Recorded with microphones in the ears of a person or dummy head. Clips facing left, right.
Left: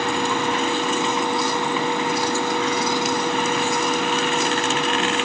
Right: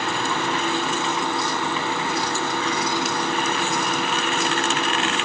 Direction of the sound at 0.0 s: 10° left (ahead or behind).